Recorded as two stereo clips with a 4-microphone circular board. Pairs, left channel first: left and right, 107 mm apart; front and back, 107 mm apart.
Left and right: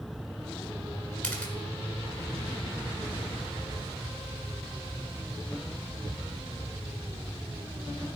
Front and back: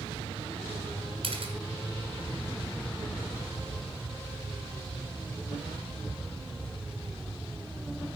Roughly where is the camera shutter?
Behind.